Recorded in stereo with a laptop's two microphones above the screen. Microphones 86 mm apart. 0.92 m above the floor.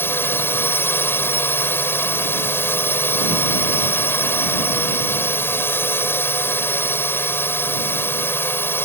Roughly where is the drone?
Left.